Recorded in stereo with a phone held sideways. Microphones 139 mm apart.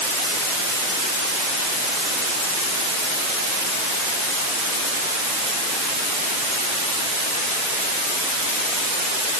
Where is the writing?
I don't hear writing.